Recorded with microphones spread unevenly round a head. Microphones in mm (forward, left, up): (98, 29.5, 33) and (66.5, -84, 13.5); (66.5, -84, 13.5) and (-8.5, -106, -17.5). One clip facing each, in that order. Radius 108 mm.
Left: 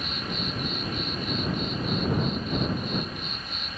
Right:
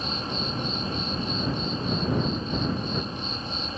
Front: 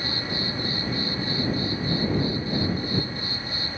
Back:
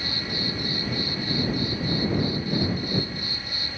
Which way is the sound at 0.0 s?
55° right.